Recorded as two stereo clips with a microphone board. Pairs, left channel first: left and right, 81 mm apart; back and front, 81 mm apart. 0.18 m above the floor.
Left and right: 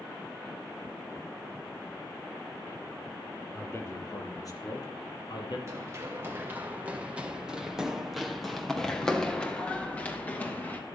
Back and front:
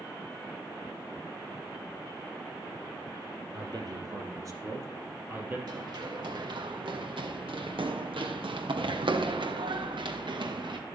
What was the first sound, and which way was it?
A man speaking, 30° left.